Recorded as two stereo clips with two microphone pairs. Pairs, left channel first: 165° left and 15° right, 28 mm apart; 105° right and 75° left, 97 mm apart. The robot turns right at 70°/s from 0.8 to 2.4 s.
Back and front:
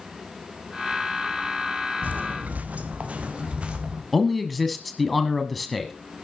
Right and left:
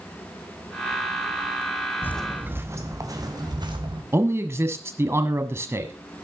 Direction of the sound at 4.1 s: 85° left.